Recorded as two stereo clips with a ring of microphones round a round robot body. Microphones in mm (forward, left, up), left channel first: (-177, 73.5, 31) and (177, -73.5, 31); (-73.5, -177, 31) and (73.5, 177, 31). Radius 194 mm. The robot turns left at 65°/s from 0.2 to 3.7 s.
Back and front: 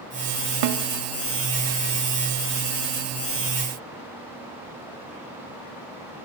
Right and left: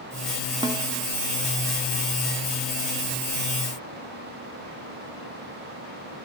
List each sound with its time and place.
0.6 s a snare drum: 10° right, 0.8 m; by 0.8 s 25° right, 0.8 m